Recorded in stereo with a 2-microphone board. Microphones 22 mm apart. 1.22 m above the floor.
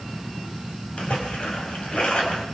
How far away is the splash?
About 6 m.